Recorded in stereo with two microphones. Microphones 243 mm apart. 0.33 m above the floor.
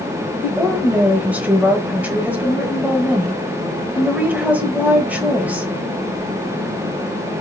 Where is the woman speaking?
5° right (ahead or behind), 1.1 m.